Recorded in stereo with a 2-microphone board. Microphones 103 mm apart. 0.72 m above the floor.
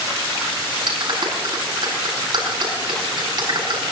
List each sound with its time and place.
0.9 s a clap: 50° right (ahead or behind), 6 m